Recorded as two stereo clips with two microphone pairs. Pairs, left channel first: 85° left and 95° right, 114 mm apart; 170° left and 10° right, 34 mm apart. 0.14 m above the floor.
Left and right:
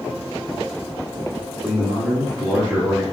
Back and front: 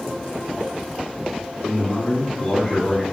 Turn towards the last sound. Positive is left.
turn(degrees=-155)